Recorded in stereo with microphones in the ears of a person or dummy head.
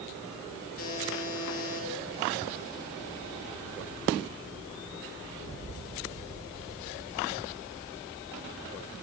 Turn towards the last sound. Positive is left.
turn(degrees=45)  # may be behind; listen again after turning